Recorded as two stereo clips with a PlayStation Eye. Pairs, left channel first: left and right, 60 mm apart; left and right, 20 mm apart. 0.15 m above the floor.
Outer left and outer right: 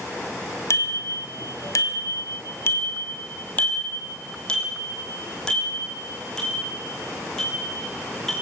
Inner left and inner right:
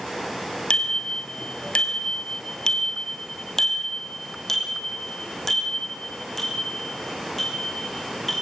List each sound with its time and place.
0.7 s a bicycle bell: 55° left (ahead or behind), 2.5 m; by 8.3 s 5° left (ahead or behind), 10 m